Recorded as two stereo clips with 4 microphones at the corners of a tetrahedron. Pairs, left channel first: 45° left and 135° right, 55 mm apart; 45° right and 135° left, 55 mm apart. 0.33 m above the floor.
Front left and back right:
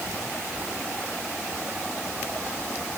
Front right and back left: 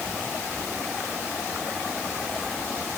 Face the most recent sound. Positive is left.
No sound to turn to.